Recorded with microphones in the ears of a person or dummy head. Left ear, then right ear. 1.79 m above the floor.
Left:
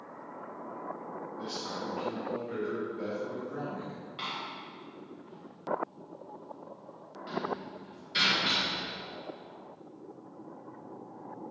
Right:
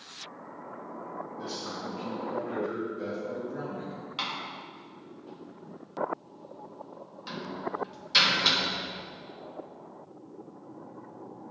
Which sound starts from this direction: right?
A door slam, at 4.2 s.